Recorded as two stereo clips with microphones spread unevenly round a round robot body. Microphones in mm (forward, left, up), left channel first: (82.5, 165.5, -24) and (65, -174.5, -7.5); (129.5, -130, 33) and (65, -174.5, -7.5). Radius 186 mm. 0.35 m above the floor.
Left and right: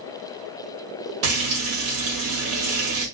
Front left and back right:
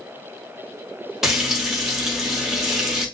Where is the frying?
115° right, 1.5 m.